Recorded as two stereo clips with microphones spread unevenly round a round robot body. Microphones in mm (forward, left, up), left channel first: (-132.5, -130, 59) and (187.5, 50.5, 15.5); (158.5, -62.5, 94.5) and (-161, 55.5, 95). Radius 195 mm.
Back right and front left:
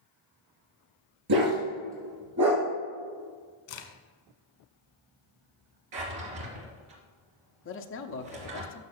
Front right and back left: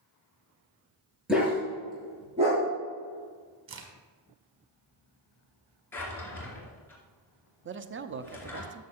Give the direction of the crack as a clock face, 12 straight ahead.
5 o'clock.